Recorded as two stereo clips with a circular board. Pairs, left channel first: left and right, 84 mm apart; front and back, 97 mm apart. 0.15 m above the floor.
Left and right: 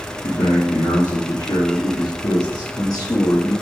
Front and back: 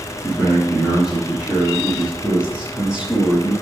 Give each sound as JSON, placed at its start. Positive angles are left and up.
{"t": 0.2, "sound": "a man speaking", "azimuth_deg": 100, "distance_m": 5.0}